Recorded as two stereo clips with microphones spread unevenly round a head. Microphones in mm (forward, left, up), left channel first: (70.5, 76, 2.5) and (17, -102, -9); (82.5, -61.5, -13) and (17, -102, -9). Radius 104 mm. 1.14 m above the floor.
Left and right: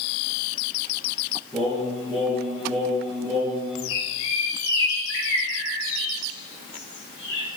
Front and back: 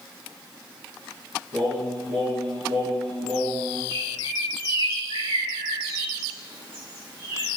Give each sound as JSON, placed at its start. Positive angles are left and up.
{"t": 1.5, "sound": "singing", "azimuth_deg": 160, "distance_m": 4.0}
{"t": 3.9, "sound": "a bird", "azimuth_deg": 95, "distance_m": 6.0}